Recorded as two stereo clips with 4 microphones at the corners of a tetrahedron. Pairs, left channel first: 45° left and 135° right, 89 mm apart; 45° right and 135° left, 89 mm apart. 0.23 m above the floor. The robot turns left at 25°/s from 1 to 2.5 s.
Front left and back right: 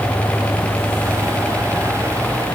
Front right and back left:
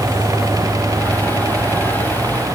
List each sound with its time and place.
Only background noise.